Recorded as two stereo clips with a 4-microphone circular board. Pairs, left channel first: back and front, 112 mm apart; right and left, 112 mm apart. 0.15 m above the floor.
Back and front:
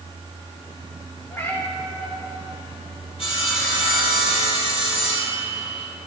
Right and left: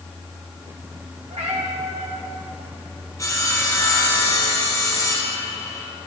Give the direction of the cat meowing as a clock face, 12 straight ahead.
8 o'clock.